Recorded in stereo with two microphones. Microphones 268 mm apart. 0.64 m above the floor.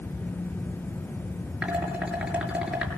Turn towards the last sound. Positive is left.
turn(degrees=-5)  # may be behind; listen again after turning